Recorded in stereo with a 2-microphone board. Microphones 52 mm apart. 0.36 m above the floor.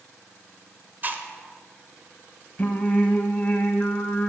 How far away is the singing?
About 0.9 m.